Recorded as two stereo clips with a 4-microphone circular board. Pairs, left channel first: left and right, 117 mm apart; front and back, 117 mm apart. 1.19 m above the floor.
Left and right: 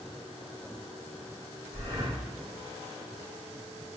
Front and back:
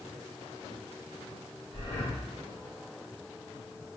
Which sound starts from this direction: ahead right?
Breathing, at 1.7 s.